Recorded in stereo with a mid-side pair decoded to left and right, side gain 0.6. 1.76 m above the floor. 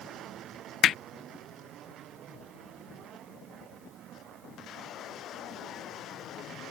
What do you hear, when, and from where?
0.8 s hammering: 50° left